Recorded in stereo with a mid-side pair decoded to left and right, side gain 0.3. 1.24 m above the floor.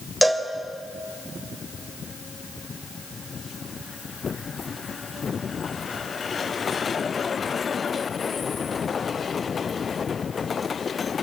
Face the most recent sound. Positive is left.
turn(degrees=-10)